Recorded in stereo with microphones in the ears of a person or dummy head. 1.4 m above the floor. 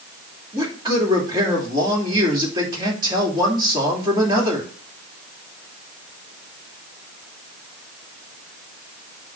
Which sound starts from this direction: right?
A man speaking, at 0.5 s.